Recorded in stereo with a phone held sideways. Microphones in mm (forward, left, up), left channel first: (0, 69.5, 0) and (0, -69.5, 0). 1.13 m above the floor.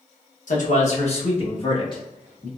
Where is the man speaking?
70° left (ahead or behind), 0.9 m; by 2.5 s 30° left (ahead or behind), 1.6 m.